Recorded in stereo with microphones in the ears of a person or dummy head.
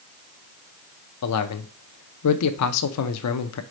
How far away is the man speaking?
About 0.6 m.